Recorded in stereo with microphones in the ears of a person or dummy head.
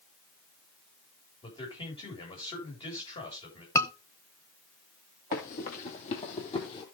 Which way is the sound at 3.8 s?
10° left (ahead or behind).